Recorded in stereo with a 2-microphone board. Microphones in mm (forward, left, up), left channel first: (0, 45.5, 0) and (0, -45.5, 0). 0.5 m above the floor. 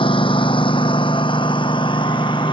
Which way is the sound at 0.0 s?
80° left.